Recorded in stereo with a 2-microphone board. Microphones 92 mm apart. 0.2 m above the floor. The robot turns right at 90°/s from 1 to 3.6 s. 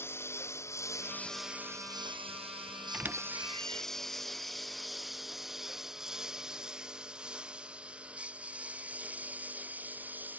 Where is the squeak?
5° right (ahead or behind); by 3.9 s 65° right (ahead or behind).